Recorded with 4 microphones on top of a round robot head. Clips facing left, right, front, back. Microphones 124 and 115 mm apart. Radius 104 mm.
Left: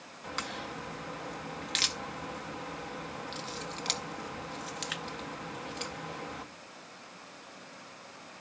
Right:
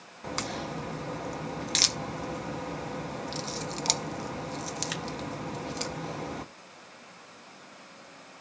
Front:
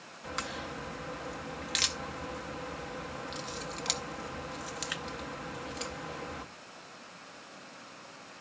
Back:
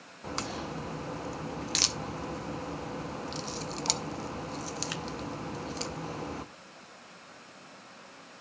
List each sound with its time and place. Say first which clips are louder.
0.2 s a crack: right 5 dB, back 3 dB; 130° right, 0.6 m